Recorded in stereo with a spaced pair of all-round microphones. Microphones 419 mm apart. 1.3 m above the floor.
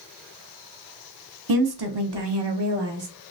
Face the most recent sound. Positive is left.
turn(degrees=-85)